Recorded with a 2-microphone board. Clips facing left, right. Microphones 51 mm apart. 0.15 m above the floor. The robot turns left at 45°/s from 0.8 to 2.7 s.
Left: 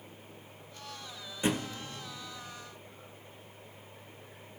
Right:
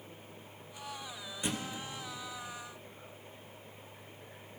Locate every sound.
1.4 s a thud: 25° left (ahead or behind), 0.8 m; by 1.8 s 45° left (ahead or behind), 0.8 m